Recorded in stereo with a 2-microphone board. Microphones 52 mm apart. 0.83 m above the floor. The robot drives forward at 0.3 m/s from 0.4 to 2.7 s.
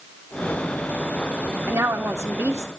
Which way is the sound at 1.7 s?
55° right (ahead or behind).